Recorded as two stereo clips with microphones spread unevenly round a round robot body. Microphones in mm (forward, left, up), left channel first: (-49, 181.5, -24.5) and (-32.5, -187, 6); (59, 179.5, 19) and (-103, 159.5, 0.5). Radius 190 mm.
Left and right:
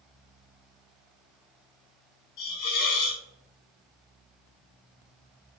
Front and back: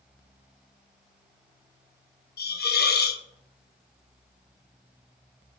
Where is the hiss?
45° left, 0.5 m.